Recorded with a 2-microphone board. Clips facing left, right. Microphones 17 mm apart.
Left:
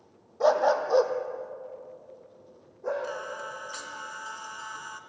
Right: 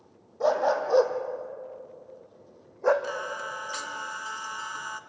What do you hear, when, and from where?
0.4 s a dog barking: 20° left (ahead or behind), 1.8 m; by 2.9 s 50° right (ahead or behind), 2.5 m
3.0 s singing: 15° right (ahead or behind), 1.2 m